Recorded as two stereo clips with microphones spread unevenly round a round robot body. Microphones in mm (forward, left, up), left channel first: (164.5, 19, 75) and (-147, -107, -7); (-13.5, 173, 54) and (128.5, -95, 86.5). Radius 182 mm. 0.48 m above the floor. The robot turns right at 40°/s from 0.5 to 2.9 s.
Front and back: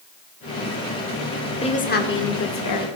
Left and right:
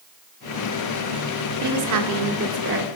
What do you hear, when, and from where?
1.6 s a woman speaking: 60° right, 2.0 m; by 2.9 s 10° right, 2.0 m